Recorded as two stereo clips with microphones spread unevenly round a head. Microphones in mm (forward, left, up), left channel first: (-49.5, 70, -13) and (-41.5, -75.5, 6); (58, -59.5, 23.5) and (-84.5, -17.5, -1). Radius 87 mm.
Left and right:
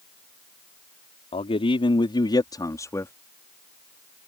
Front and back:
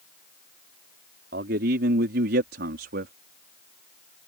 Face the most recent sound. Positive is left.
turn(degrees=165)